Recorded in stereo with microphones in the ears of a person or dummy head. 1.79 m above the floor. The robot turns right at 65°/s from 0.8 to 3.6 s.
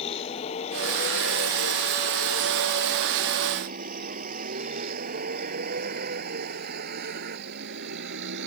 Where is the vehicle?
30° left (ahead or behind); by 8.5 s 60° right (ahead or behind).